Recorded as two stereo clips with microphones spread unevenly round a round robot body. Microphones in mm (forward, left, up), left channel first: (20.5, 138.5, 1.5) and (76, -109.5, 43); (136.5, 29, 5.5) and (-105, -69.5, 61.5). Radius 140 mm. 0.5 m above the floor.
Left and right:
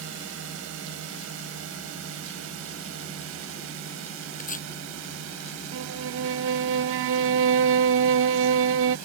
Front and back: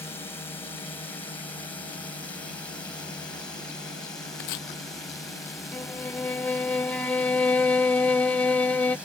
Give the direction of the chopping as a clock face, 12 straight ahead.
11 o'clock.